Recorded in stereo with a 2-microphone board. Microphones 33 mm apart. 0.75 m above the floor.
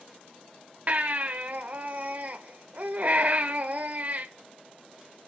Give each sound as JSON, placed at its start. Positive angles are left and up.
{"t": 0.9, "sound": "a baby crying", "side_deg": -50, "distance_m": 1.4}